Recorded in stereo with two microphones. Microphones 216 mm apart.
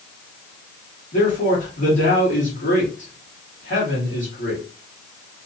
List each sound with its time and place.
1.1 s a man speaking: 60° left (ahead or behind), 2 m